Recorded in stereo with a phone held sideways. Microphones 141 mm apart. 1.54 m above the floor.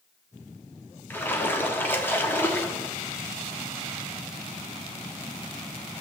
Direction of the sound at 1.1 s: 15° left (ahead or behind).